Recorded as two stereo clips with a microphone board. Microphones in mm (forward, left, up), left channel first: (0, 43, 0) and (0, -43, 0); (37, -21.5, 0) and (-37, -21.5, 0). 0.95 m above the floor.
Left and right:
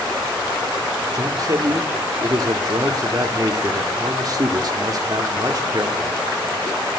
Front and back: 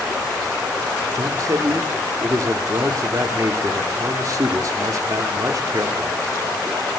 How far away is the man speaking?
About 1.8 m.